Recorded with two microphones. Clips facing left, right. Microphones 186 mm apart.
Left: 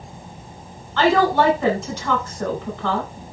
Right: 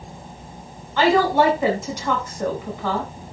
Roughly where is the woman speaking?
Centre.